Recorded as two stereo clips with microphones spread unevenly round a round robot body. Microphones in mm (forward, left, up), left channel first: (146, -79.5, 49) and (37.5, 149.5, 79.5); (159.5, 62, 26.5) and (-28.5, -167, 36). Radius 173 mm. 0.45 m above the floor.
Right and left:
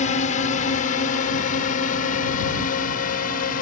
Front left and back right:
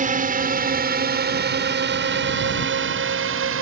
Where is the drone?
85° right; by 3.6 s 105° right.